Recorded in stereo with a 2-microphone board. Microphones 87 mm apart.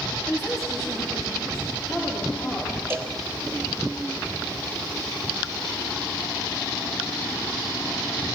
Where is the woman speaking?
5° left (ahead or behind), 7 m; by 2.8 s 15° left (ahead or behind), 9.5 m.